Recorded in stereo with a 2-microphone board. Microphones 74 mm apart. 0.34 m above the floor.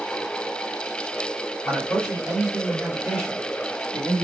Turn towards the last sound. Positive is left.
turn(degrees=-30)  # may be behind; listen again after turning